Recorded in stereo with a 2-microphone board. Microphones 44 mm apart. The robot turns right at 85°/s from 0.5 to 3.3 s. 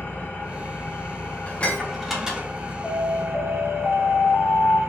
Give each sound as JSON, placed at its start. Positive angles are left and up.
{"t": 0.0, "sound": "an engine running", "azimuth_deg": 50, "distance_m": 2.0}
{"t": 1.5, "sound": "dishes clattering", "side_deg": 40, "distance_m": 0.9}
{"t": 2.8, "sound": "an alarm", "azimuth_deg": 0, "distance_m": 1.4}